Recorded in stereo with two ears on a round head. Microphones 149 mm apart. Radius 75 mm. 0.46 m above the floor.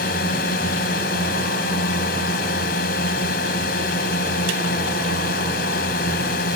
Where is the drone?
60° left (ahead or behind).